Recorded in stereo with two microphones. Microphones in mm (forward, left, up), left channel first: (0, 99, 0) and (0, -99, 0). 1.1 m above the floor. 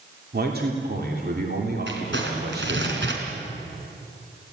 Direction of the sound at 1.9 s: 70° right (ahead or behind).